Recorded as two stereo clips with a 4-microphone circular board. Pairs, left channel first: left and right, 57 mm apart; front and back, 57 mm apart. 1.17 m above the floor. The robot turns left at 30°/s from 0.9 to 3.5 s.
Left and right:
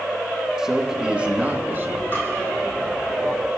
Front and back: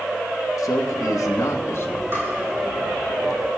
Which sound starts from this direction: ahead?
A man speaking, at 0.6 s.